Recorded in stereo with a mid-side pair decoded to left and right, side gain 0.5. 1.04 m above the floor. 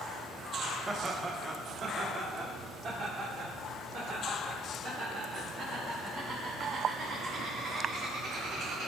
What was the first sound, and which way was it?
Laughter, 30° right.